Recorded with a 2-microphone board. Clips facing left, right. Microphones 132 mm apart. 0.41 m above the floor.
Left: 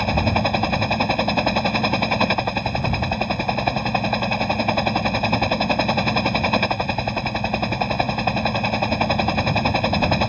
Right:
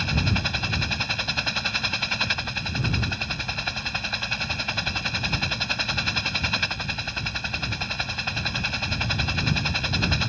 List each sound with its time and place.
0.0 s a helicopter: 55° left (ahead or behind)